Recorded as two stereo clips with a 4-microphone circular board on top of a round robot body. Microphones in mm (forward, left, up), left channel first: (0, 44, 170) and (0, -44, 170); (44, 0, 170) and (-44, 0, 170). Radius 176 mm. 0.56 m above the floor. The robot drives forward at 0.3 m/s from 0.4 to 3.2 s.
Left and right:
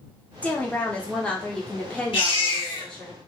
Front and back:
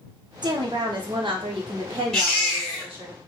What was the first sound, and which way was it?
A woman speaking, 160° left.